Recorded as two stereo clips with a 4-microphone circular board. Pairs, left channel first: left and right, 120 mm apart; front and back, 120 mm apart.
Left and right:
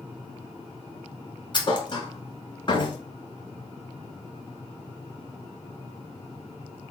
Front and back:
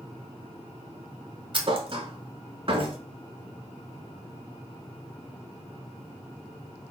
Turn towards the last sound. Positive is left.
turn(degrees=140)